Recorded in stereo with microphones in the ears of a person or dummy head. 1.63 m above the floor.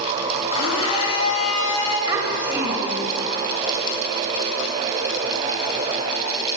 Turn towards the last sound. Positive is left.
turn(degrees=-30)  # may be behind; listen again after turning